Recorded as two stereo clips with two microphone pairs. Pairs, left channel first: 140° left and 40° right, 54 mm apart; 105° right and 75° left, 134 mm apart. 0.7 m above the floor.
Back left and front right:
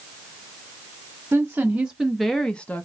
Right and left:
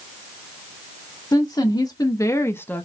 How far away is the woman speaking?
About 0.8 m.